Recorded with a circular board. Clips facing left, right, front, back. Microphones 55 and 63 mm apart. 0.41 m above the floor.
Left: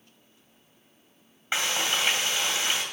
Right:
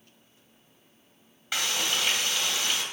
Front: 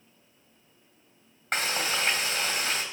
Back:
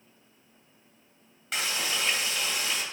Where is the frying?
30° left, 2.5 m.